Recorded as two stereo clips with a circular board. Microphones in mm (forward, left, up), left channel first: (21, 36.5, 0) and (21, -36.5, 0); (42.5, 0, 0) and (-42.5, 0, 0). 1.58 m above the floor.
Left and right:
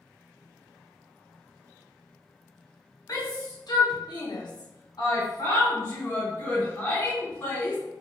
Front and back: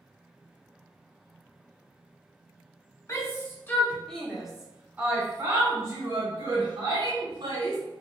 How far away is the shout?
About 1.4 m.